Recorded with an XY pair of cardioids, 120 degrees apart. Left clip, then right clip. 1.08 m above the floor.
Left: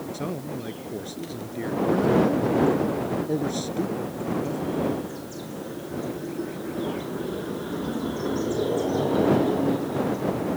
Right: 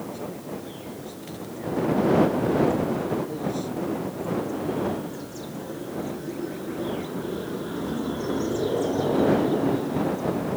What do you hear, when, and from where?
0.1 s a man speaking: 50° left